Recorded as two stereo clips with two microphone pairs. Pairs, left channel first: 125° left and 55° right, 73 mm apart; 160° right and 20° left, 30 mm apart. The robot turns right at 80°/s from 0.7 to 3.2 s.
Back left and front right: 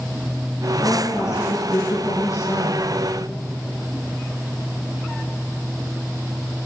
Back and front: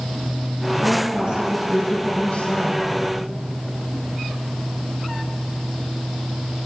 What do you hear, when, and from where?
0.8 s a woman speaking: 45° left, 8.5 m; by 2.9 s 145° right, 8.5 m